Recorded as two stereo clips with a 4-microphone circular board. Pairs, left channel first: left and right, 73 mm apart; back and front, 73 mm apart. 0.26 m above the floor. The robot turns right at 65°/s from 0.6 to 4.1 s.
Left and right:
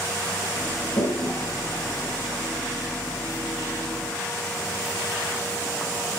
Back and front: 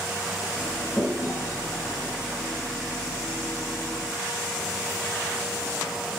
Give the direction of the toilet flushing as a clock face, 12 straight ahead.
9 o'clock.